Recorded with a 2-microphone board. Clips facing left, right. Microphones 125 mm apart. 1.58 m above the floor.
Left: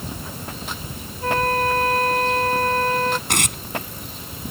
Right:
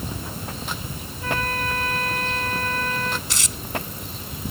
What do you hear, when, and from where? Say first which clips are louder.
1.2 s a flute: left 7 dB; 40° left (ahead or behind)
3.3 s tearing paper: left 7 dB; 60° left (ahead or behind)